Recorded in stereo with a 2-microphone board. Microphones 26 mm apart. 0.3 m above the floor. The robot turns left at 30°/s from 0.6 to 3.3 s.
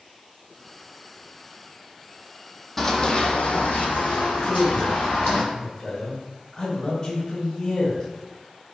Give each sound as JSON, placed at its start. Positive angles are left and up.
{"t": 2.8, "sound": "running footsteps", "side_deg": 10, "distance_m": 0.6}
{"t": 4.4, "sound": "a man speaking", "side_deg": 20, "distance_m": 0.9}